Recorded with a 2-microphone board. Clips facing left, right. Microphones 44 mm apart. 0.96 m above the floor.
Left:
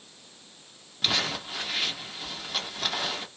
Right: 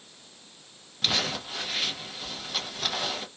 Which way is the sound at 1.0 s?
Centre (ahead or behind).